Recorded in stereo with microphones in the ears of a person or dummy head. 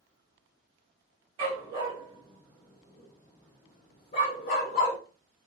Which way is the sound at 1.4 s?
30° right (ahead or behind).